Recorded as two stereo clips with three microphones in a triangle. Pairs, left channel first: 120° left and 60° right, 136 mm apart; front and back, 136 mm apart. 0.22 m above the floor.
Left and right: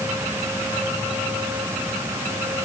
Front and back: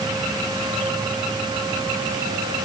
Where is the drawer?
No drawer in this recording.